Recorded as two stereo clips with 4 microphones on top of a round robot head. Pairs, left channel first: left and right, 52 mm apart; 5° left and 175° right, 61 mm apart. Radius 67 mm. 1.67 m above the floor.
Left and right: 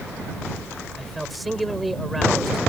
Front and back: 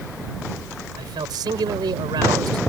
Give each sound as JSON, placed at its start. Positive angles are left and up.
{"t": 1.0, "sound": "a man speaking", "azimuth_deg": 180}